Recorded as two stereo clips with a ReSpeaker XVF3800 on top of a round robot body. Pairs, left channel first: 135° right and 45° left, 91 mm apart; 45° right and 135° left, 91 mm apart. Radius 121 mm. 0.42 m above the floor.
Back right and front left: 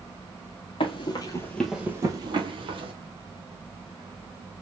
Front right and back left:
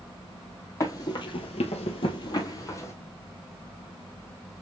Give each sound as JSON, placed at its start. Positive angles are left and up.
{"t": 0.8, "sound": "running footsteps", "azimuth_deg": -105, "distance_m": 0.9}